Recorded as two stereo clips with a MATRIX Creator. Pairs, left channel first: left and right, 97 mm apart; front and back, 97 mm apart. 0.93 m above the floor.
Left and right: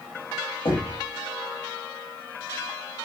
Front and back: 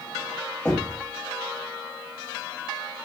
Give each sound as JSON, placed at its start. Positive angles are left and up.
{"t": 0.7, "sound": "knocking", "azimuth_deg": 80, "distance_m": 3.0}